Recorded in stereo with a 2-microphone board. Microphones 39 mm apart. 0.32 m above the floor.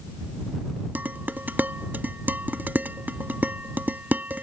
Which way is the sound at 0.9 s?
55° right (ahead or behind).